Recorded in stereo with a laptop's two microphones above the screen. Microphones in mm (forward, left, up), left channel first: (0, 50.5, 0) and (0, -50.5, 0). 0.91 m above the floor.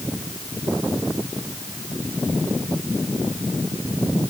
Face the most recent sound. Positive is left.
No sound to turn to.